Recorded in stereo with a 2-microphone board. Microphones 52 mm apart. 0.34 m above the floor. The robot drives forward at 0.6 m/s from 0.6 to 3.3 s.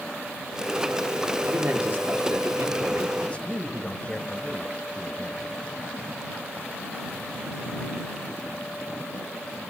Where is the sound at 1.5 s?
40° right (ahead or behind), 6 m; by 3.1 s 50° right (ahead or behind), 5 m.